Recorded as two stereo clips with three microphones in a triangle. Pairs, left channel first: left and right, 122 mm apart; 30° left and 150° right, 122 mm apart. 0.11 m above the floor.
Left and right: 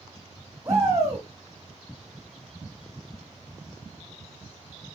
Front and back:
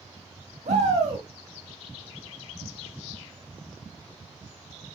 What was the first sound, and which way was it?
A shout, 155° right.